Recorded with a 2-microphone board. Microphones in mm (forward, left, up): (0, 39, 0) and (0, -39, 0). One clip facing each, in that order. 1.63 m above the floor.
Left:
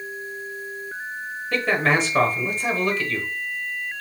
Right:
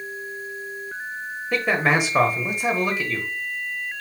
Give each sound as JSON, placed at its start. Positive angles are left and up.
{"t": 1.5, "sound": "a man speaking", "side_deg": -15, "distance_m": 1.1}